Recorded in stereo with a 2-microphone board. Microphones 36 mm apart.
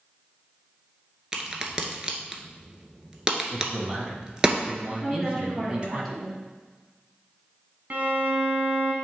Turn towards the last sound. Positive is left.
turn(degrees=-50)  # may be behind; listen again after turning